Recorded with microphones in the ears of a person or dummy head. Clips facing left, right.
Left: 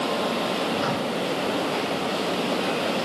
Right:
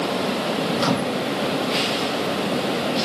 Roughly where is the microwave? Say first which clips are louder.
Right 4 dB; right.